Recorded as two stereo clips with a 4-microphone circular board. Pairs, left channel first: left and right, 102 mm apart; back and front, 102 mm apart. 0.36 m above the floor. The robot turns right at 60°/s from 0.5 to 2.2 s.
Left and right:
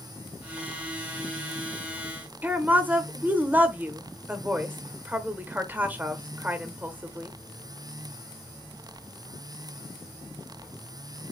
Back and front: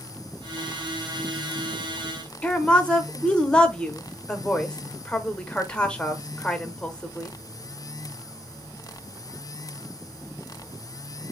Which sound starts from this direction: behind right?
A woman speaking, at 2.4 s.